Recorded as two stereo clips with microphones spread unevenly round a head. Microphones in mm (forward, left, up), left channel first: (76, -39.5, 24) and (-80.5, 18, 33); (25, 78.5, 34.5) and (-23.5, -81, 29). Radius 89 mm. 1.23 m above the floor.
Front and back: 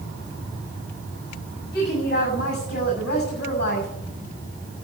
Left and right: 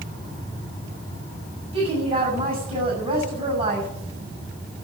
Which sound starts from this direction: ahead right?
A woman speaking, at 1.7 s.